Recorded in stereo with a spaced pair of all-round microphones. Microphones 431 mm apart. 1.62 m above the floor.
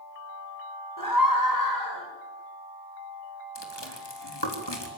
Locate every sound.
1.0 s a scream: 45° left (ahead or behind), 8.5 m; by 2.1 s 50° left (ahead or behind), 10 m
3.5 s chewing: 70° left (ahead or behind), 4 m